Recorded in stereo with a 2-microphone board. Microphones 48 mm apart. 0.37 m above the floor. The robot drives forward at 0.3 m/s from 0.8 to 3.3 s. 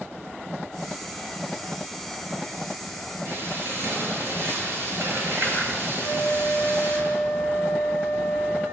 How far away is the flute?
About 9.5 m.